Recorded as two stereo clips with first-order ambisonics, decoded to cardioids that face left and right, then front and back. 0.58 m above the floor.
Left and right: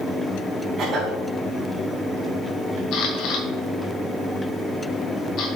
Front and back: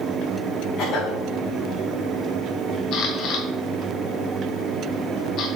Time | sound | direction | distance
0.8 | a cough | 25° right | 3.5 m
2.9 | a camera shutter | 45° left | 1.7 m